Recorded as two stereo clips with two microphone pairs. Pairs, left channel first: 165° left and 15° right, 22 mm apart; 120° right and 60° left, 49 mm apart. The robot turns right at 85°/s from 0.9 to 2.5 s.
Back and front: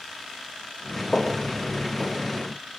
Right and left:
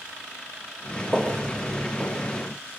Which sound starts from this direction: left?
Footsteps, at 1.1 s.